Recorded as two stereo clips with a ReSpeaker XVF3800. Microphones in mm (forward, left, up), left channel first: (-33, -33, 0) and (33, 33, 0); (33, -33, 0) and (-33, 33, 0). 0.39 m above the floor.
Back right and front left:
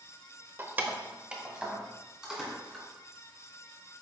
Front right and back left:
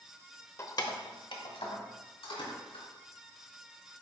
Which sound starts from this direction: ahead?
Keys jangling, at 0.6 s.